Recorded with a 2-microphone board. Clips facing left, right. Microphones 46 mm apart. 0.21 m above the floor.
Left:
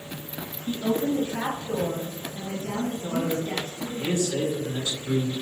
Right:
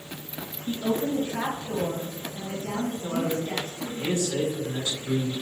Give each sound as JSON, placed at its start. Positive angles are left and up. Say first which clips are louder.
{"t": 0.7, "sound": "a woman speaking", "louder": "left 1 dB", "side_deg": 5, "distance_m": 1.4}
{"t": 3.0, "sound": "a man speaking", "louder": "even", "side_deg": -30, "distance_m": 1.8}